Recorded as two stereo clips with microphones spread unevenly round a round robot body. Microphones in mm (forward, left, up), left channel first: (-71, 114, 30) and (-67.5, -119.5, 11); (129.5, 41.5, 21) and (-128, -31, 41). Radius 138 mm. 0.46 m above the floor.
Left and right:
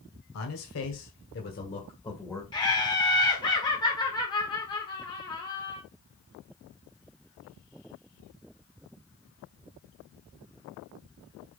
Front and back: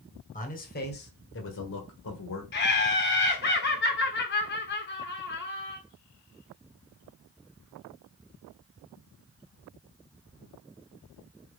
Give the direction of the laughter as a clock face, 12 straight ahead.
11 o'clock.